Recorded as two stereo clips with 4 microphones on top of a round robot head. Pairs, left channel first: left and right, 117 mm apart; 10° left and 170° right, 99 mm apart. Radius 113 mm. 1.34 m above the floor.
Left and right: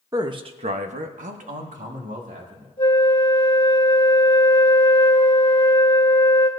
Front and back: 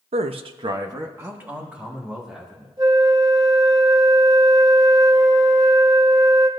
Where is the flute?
150° left, 2.5 m.